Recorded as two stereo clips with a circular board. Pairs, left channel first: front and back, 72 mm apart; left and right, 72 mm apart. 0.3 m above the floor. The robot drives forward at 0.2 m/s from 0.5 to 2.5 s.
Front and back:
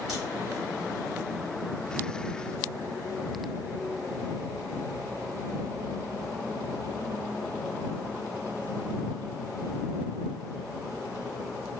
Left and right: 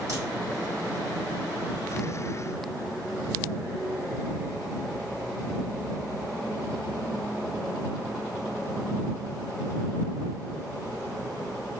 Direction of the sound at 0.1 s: 95° right.